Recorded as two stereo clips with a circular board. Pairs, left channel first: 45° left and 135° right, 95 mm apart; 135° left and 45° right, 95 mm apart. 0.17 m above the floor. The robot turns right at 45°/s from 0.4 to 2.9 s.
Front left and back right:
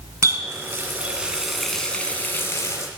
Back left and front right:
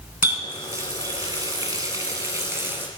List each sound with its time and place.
0.2 s a running tap: 100° right, 1.2 m; by 2.9 s 15° left, 1.2 m